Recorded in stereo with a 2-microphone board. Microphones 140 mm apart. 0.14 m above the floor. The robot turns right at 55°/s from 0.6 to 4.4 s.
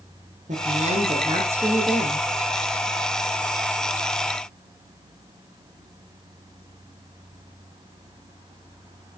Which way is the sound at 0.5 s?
70° right.